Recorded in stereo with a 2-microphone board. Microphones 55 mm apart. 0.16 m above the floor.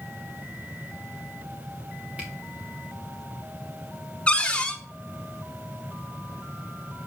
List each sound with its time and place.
2.2 s a camera shutter: 25° right (ahead or behind), 3 m
4.3 s a cupboard door: 20° left (ahead or behind), 1.1 m